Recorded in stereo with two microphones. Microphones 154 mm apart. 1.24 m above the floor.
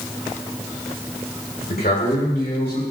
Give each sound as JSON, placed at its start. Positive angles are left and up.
{"t": 1.7, "sound": "a man speaking", "side_deg": 80, "distance_m": 4.5}